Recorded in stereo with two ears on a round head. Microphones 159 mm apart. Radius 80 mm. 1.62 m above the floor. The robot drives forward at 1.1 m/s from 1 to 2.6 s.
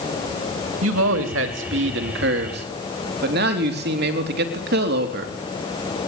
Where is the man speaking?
85° right, 3 m; by 5.3 s 65° right (ahead or behind), 3.5 m.